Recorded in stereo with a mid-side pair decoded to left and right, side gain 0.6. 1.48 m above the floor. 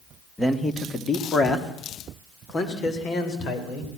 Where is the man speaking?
5° left, 2 m; by 3.9 s 50° left, 5.5 m.